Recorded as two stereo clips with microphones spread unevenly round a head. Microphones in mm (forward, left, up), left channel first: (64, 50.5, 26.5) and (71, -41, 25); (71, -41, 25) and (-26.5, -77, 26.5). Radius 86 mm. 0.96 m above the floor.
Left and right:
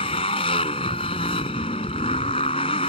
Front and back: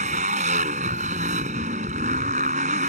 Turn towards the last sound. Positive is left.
turn(degrees=155)